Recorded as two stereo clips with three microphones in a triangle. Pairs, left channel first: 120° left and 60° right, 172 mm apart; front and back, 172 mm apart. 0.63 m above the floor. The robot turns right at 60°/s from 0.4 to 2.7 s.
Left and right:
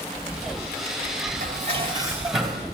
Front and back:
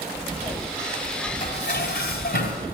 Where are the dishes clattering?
30° right, 3 m; by 2.6 s 45° left, 3 m.